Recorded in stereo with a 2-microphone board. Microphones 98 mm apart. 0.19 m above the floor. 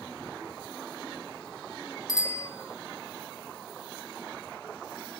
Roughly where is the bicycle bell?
Left.